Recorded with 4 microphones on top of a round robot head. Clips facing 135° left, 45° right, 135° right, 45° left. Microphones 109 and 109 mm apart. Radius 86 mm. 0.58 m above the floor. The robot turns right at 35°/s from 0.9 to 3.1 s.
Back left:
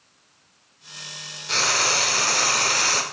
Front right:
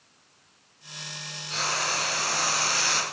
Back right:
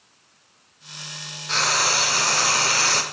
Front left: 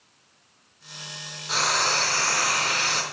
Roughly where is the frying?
Behind left.